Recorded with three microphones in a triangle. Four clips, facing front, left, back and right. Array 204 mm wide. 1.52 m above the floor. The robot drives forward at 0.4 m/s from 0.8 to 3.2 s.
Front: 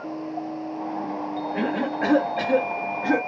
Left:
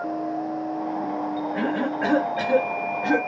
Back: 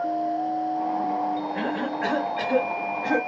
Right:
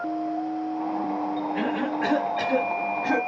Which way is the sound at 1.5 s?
15° left.